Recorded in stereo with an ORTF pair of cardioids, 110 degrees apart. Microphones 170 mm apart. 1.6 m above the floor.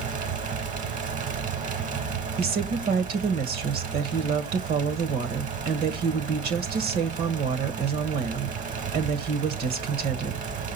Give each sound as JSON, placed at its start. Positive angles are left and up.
{"t": 0.0, "sound": "a fan", "azimuth_deg": -50, "distance_m": 1.4}
{"t": 2.4, "sound": "a woman speaking", "azimuth_deg": -65, "distance_m": 1.9}